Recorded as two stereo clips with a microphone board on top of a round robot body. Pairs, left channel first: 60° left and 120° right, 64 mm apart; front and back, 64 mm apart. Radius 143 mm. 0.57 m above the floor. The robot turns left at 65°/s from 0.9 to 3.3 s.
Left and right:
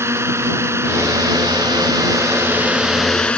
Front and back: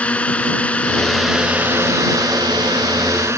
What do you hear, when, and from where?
0.0 s a drone: 75° right; by 3.4 s 130° left